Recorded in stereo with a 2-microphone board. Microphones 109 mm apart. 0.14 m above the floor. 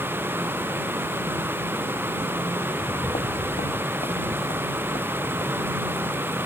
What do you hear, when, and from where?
2.7 s footsteps: 70° left (ahead or behind); by 6.5 s 85° left